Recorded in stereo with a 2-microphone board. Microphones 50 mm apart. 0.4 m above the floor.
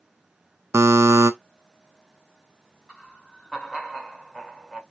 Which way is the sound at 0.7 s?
70° right (ahead or behind).